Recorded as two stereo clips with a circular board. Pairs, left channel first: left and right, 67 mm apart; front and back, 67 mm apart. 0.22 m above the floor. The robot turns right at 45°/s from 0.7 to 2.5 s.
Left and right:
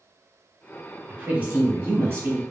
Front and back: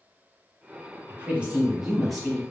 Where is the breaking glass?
I don't hear breaking glass.